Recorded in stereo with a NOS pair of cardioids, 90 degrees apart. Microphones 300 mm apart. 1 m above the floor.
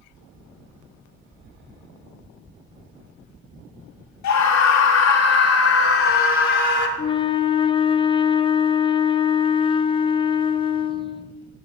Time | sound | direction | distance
4.2 | a scream | 70° left | 2.5 m
7.0 | a flute | 20° left | 0.6 m